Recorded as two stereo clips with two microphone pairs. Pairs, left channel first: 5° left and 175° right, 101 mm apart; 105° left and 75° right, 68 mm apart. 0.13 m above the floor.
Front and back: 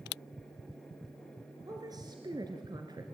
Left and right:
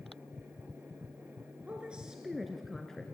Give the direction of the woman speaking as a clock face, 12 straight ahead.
5 o'clock.